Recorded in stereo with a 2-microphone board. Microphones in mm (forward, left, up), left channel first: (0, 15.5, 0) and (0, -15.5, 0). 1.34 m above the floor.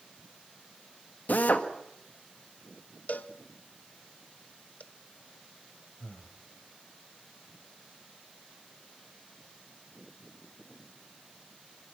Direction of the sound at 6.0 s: 40° left (ahead or behind).